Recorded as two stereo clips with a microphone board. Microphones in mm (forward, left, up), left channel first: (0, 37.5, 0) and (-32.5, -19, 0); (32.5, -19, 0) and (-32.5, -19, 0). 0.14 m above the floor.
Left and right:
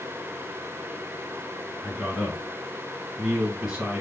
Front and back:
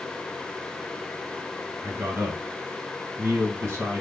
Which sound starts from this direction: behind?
A man speaking, at 1.8 s.